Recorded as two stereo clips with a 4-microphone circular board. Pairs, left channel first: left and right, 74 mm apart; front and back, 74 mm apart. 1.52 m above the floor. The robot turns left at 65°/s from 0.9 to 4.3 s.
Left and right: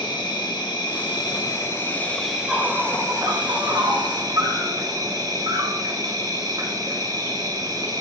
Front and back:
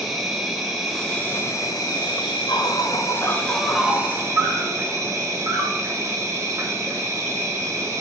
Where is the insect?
95° left, 0.9 m; by 8.0 s 130° right, 0.9 m.